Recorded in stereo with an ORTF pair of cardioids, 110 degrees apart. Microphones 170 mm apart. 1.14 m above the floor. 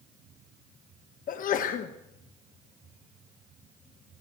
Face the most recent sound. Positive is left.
turn(degrees=55)